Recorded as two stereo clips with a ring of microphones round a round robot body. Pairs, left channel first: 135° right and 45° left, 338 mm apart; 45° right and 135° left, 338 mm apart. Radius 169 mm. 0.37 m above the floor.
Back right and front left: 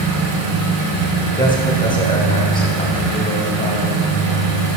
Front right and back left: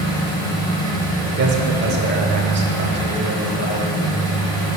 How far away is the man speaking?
About 1.0 m.